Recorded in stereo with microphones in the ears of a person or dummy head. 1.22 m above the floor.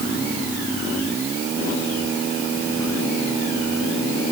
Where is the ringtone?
I don't hear a ringtone.